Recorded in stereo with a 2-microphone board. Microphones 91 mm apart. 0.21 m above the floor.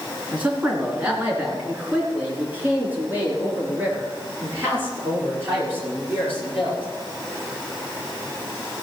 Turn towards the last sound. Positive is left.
turn(degrees=-25)  # may be behind; listen again after turning